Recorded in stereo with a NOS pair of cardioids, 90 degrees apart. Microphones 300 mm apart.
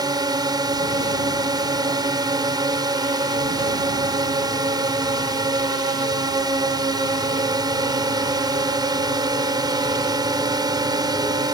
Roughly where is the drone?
Ahead.